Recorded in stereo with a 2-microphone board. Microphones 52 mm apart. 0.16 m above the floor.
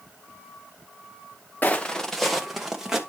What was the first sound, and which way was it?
Footsteps, 35° left (ahead or behind).